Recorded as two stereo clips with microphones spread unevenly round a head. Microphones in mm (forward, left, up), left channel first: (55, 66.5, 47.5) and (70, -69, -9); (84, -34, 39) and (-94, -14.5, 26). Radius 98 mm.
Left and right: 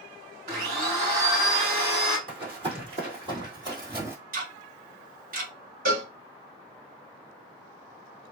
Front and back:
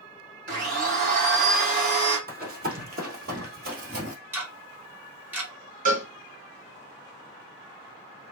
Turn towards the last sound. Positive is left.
turn(degrees=-145)